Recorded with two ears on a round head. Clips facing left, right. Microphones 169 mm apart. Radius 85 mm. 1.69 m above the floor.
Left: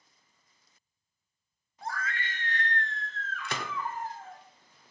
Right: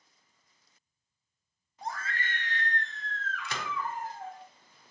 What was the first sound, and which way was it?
A scream, 15° right (ahead or behind).